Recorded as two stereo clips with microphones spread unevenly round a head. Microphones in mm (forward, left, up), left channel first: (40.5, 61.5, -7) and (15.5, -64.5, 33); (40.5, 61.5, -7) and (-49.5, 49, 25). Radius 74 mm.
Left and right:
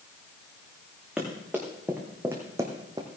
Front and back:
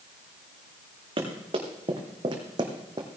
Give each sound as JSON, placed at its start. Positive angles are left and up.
{"t": 1.2, "sound": "running footsteps", "azimuth_deg": 180, "distance_m": 3.0}